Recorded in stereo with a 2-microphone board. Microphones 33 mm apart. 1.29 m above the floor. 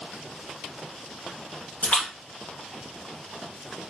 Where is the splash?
45° left (ahead or behind), 1.8 m.